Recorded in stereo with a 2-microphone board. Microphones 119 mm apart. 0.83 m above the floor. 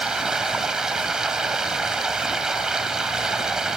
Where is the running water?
5° right (ahead or behind), 1.5 m.